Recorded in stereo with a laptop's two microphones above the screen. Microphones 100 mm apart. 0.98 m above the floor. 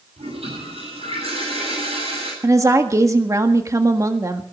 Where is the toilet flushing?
80° right, 9 m.